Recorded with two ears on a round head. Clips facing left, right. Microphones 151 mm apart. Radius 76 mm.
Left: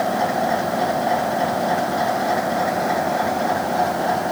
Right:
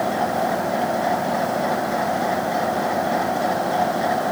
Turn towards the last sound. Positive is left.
No sound to turn to.